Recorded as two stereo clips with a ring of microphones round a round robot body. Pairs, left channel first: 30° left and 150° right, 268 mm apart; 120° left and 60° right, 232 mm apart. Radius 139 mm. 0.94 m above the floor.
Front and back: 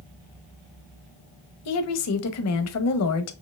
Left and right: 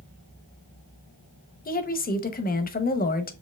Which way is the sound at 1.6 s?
65° left.